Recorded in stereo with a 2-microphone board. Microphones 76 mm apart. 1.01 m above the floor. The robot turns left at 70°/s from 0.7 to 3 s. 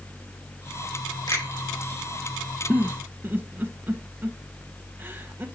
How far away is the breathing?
I don't hear breathing.